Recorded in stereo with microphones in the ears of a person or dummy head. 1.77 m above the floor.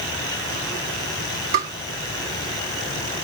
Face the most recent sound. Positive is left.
turn(degrees=-25)  # may be behind; listen again after turning